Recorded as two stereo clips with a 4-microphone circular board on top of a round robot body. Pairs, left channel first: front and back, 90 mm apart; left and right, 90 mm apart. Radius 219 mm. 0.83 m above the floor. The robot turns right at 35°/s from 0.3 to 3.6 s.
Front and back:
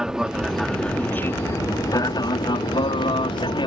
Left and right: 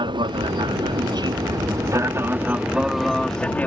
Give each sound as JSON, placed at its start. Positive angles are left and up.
{"t": 0.0, "sound": "an aircraft", "azimuth_deg": -100}